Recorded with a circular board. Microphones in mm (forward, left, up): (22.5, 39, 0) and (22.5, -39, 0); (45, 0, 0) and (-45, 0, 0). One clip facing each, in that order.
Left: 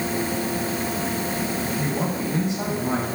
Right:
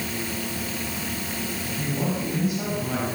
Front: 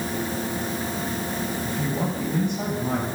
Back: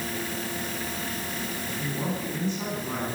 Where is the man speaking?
25° left, 8.5 m.